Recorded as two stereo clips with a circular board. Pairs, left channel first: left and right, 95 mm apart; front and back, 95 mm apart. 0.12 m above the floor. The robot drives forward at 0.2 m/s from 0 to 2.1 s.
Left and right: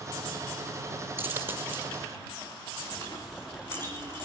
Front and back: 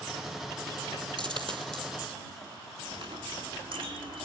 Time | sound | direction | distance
1.2 | a dropped coin | 155° right | 1.9 m
2.9 | a clink | 155° left | 4.5 m